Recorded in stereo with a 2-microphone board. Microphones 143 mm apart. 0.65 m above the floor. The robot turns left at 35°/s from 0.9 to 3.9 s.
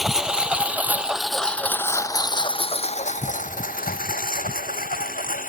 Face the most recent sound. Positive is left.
turn(degrees=75)  # may be behind; listen again after turning